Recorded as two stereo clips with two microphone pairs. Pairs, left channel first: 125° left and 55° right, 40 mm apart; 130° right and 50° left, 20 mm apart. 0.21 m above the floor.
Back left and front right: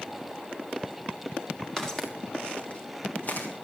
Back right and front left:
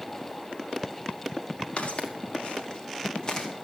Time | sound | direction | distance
1.8 | footsteps | 155° right | 3 m